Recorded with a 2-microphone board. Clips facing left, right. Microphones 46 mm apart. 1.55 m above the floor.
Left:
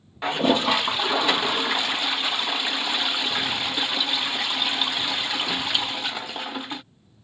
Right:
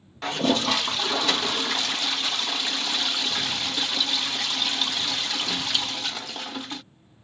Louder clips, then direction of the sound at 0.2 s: Left 3 dB; 20° left (ahead or behind).